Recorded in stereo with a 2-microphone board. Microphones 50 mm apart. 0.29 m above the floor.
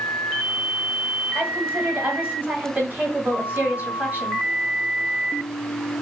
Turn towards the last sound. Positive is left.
turn(degrees=-35)  # may be behind; listen again after turning